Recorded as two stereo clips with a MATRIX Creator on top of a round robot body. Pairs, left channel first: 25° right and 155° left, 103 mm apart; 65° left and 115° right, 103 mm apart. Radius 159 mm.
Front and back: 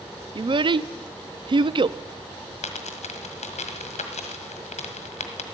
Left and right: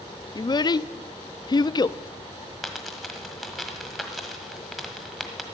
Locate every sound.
0.3 s a child speaking: 115° left, 0.5 m
2.6 s a dropped coin: 25° right, 1.4 m